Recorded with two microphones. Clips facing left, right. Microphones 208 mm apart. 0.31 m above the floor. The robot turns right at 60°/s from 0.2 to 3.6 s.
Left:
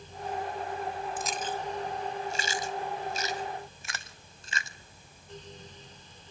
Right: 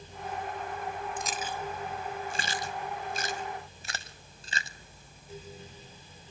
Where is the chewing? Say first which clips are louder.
Left 2 dB; 5° left (ahead or behind), 1.0 m; by 4.8 s 35° right (ahead or behind), 1.0 m.